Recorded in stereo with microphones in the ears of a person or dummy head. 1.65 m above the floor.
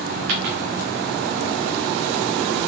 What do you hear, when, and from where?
0.3 s a dropped coin: 45° right (ahead or behind), 2 m